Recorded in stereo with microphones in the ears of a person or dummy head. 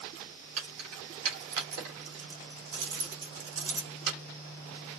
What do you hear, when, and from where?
0.6 s keys jangling: 85° right, 3 m